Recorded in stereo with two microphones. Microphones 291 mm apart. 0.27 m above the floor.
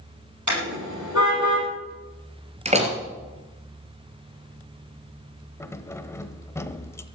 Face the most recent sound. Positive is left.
turn(degrees=10)  # may be behind; listen again after turning